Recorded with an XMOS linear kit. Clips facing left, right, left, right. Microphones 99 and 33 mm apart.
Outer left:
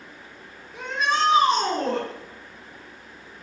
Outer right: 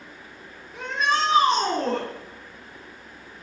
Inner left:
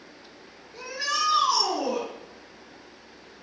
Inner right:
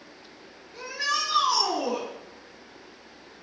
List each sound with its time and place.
0.7 s a shout: centre (ahead or behind), 2.5 m